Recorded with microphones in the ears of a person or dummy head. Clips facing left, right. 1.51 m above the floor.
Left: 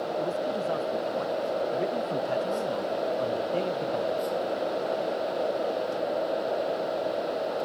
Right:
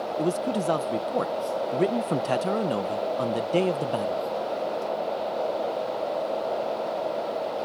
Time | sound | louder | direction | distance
0.2 | a man speaking | right 6 dB | 75° right (ahead or behind) | ?